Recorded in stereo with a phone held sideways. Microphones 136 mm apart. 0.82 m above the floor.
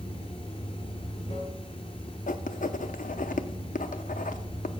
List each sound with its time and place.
0.0 s running water: 45° left (ahead or behind), 2 m
2.3 s writing: 80° left, 0.5 m